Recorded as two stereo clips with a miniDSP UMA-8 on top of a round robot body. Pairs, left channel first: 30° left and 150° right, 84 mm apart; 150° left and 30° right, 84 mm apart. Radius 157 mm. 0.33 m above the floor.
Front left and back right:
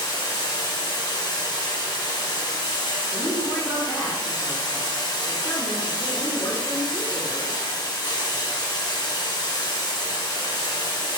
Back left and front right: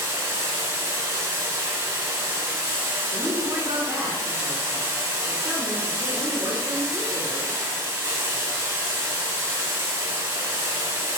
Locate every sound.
0.0 s running water: 15° left, 1.4 m
3.1 s a woman speaking: 75° right, 1.6 m